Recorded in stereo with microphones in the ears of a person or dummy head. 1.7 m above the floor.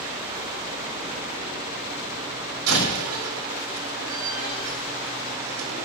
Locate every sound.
2.7 s a door slam: 85° right, 7.5 m